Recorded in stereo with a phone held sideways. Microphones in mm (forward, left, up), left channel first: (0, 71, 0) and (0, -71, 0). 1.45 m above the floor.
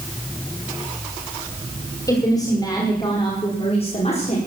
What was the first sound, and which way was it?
A woman speaking, 20° left (ahead or behind).